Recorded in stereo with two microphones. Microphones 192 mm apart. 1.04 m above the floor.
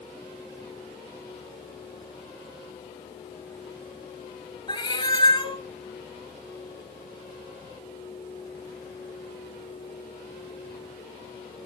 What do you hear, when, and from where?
4.7 s a cat meowing: 25° left (ahead or behind), 1.1 m